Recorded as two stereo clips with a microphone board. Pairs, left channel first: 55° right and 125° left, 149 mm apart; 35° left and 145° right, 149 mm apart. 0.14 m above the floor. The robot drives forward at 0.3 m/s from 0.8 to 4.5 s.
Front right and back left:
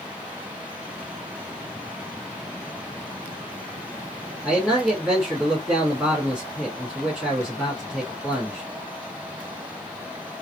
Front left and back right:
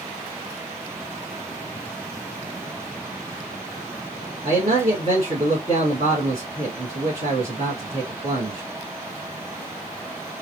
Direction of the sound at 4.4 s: 155° right.